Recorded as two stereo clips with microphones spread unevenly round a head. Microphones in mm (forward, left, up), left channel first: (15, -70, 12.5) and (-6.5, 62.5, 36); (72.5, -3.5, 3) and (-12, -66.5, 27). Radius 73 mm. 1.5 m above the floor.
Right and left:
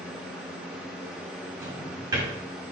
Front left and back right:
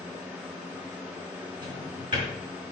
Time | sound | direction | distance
0.0 | a fan | 165° left | 0.9 m
1.6 | a drawer | 160° left | 4.5 m